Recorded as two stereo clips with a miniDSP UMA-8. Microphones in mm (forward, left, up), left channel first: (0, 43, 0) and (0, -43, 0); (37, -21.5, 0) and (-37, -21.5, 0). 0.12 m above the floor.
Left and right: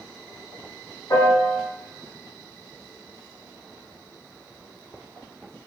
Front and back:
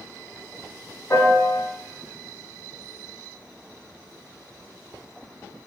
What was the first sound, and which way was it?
A piano, 50° left.